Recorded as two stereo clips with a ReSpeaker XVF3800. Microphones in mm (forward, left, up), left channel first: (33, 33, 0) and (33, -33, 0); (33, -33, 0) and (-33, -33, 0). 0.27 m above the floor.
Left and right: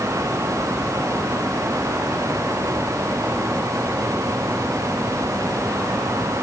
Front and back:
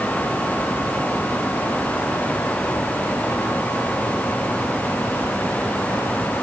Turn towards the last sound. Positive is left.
No sound to turn to.